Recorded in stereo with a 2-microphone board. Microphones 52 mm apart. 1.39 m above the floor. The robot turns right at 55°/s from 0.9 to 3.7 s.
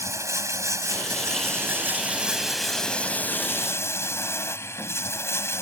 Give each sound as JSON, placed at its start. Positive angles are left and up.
{"t": 0.0, "sound": "running water", "azimuth_deg": -90}